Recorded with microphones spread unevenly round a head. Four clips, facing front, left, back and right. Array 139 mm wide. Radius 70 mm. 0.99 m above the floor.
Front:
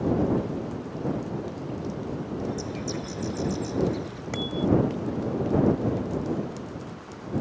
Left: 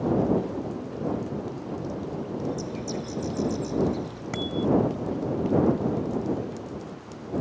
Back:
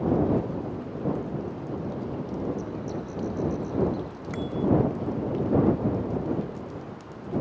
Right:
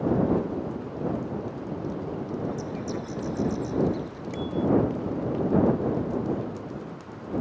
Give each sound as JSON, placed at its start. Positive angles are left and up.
{"t": 2.4, "sound": "a bird", "azimuth_deg": 0}
{"t": 4.3, "sound": "a bicycle bell", "azimuth_deg": 85}